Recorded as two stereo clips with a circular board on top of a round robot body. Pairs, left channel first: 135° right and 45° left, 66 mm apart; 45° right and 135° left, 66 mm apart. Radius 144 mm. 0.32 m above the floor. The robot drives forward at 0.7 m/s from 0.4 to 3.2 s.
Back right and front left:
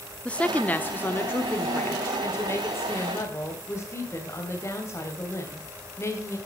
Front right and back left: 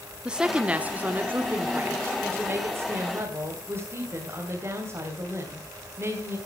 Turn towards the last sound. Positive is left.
turn(degrees=180)